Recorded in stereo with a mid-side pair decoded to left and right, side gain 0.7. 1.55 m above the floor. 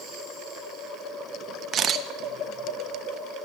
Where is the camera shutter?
40° right, 0.7 m.